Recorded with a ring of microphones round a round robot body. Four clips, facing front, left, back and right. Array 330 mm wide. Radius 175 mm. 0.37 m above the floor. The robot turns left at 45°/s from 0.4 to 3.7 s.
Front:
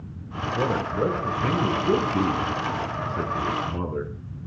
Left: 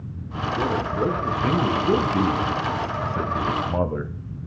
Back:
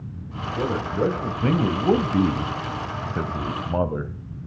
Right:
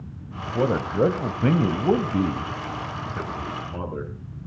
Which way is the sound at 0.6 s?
80° right.